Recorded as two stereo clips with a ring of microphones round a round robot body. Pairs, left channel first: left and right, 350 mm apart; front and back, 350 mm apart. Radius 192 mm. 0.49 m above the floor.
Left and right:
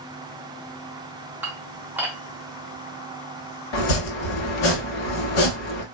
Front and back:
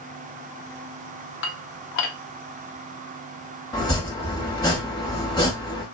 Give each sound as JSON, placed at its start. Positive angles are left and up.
{"t": 1.4, "sound": "dishes clattering", "azimuth_deg": -10, "distance_m": 0.5}
{"t": 3.7, "sound": "chopping", "azimuth_deg": 80, "distance_m": 0.7}